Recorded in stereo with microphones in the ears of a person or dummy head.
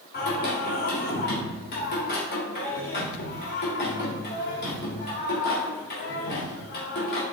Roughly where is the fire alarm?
No fire alarm in this recording.